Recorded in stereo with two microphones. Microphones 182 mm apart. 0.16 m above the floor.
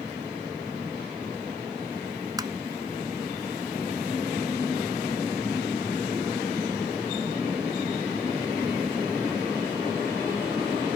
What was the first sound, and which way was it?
Tapping, 20° right (ahead or behind).